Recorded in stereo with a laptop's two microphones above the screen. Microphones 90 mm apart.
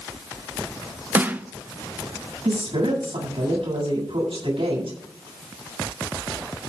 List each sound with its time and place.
1.1 s a snare drum: 20° right (ahead or behind), 0.7 m
2.5 s a woman speaking: 75° right (ahead or behind), 8 m